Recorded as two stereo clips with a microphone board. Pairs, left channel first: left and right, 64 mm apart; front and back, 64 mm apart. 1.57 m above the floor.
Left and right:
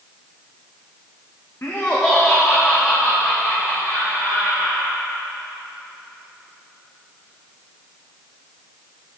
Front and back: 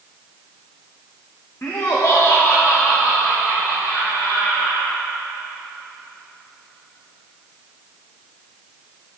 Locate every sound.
1.6 s laughter: 45° left, 0.9 m; by 4.9 s 35° right, 5 m